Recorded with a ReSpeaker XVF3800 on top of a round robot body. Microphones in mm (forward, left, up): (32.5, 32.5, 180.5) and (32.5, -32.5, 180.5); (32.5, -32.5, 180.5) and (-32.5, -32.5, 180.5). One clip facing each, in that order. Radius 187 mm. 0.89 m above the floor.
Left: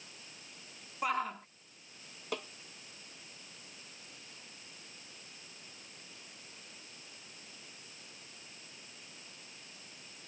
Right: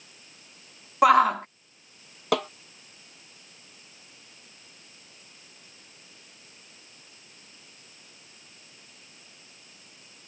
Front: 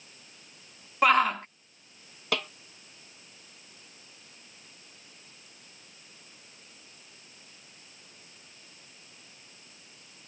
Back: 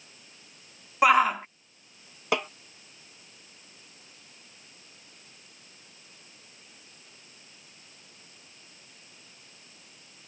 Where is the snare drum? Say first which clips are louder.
Right 15 dB, back 4 dB; 110° right.